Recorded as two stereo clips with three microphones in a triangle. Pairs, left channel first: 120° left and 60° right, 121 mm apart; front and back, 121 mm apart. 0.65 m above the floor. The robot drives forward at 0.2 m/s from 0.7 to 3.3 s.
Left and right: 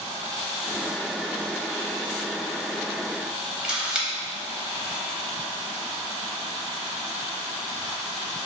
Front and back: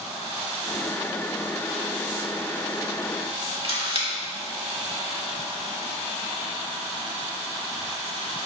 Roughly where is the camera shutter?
Behind right.